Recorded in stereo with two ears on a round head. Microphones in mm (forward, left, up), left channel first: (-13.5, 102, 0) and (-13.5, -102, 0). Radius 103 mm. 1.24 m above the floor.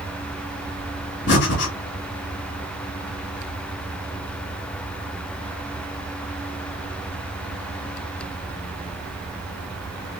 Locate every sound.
1.3 s breathing: 55° left (ahead or behind), 2.5 m